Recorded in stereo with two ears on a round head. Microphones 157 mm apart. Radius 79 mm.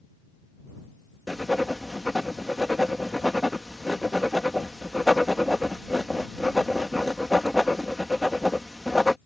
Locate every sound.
1.3 s writing: centre (ahead or behind)